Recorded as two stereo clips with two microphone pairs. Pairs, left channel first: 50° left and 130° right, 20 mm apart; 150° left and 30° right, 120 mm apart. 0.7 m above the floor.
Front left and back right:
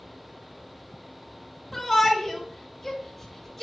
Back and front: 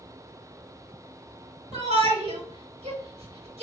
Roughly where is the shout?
Ahead right.